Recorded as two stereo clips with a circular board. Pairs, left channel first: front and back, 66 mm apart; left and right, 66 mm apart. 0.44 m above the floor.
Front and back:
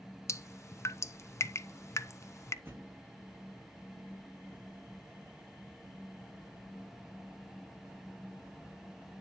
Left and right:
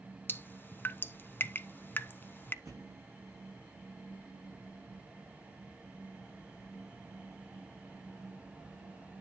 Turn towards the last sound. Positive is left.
turn(degrees=-125)